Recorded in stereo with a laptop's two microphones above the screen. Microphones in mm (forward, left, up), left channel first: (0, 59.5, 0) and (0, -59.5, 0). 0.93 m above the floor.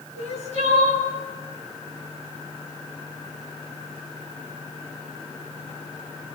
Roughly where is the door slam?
I don't hear a door slam.